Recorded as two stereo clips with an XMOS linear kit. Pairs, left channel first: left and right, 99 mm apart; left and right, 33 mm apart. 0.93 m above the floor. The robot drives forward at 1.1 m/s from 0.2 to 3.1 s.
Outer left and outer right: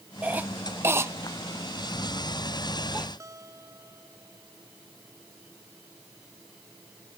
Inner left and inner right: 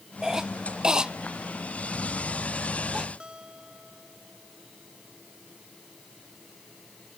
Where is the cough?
15° right (ahead or behind); by 3.1 s 10° right (ahead or behind).